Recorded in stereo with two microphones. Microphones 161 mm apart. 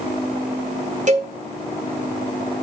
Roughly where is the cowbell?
Right.